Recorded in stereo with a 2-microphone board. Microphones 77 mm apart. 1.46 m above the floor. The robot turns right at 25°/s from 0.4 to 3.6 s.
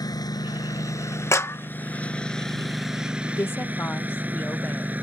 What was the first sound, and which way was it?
A lawn mower, 125° left.